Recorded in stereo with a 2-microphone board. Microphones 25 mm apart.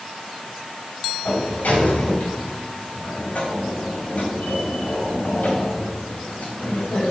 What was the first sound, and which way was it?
A sliding door, 80° left.